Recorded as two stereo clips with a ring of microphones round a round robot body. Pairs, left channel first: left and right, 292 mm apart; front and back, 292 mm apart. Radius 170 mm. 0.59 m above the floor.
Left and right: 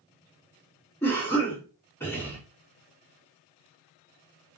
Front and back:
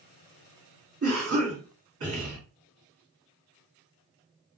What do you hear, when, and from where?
1.0 s a cough: 170° left, 1.5 m